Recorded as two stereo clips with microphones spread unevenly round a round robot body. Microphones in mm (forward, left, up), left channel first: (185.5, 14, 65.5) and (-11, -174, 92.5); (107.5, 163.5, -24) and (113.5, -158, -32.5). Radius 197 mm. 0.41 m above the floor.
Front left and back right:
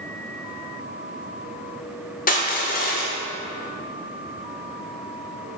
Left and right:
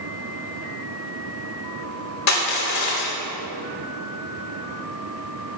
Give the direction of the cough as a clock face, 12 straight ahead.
No cough in this recording.